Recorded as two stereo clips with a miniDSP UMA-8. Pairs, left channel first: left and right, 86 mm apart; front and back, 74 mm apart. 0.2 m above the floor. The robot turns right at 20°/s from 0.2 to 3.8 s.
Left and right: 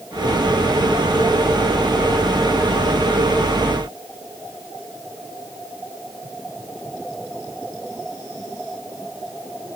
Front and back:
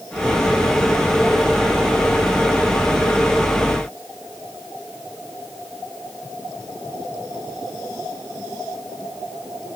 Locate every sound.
Only background noise.